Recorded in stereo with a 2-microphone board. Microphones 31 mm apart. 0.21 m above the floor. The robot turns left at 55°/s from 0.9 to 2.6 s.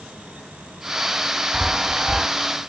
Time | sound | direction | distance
1.5 | a chime | 20° right (ahead or behind) | 0.5 m